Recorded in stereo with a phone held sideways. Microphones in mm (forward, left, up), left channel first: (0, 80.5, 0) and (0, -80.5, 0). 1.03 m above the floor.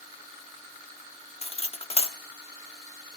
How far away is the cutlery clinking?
About 1.0 m.